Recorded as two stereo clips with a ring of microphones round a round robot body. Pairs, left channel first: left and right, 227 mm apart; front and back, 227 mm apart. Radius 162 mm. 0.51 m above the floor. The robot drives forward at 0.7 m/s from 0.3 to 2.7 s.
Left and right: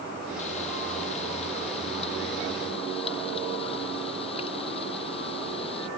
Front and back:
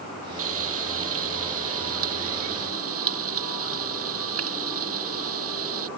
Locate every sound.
0.4 s frying: 160° left; by 5.9 s 165° left